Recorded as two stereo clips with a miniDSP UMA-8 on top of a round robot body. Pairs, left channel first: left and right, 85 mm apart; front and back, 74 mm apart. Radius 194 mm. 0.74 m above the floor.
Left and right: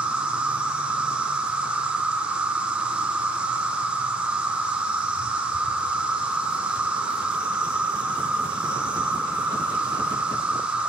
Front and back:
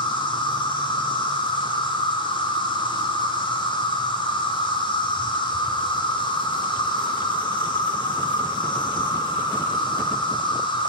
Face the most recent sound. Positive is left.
turn(degrees=-10)